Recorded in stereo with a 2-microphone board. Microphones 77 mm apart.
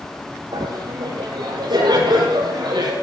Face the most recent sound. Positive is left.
turn(degrees=-80)